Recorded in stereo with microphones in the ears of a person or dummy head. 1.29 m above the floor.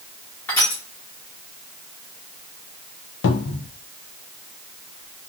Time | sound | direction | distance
0.5 | crushing | 15° left (ahead or behind) | 1.1 m
3.2 | a cupboard door | 70° left (ahead or behind) | 0.5 m